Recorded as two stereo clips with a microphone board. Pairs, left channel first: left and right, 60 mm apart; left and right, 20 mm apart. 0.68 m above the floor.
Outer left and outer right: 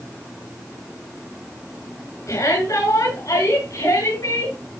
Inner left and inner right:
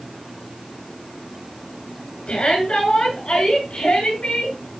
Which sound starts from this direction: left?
A shout, at 2.3 s.